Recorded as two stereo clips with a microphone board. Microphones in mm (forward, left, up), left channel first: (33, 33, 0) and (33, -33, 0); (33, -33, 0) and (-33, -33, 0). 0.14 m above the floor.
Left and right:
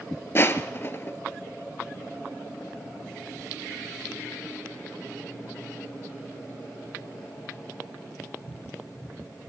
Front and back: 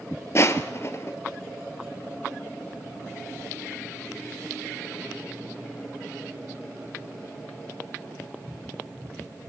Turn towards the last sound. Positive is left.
turn(degrees=40)